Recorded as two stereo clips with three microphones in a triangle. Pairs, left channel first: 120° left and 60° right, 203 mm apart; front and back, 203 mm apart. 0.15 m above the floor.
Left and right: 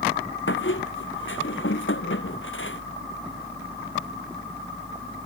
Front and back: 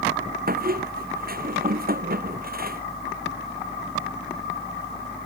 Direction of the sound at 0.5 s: 135° left.